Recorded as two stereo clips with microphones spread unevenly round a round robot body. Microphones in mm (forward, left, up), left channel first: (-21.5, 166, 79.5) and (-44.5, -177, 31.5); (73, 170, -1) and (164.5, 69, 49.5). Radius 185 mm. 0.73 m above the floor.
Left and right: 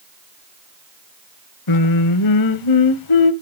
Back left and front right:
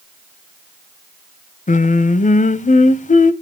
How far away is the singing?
About 0.8 m.